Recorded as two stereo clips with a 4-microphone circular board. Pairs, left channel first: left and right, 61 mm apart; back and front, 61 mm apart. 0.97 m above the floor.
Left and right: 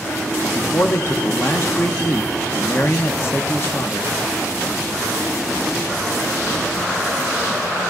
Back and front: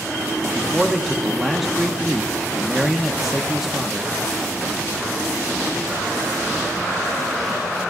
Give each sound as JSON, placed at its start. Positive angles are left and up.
{"t": 0.4, "sound": "a man speaking", "azimuth_deg": 90, "distance_m": 1.0}